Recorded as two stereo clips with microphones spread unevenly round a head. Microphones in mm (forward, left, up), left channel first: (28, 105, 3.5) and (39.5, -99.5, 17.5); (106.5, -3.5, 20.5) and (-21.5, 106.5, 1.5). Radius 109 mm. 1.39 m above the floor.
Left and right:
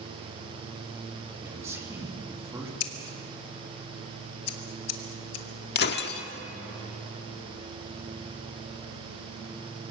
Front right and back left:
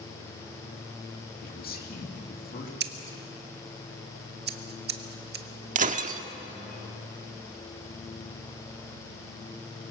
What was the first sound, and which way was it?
A man speaking, 10° right.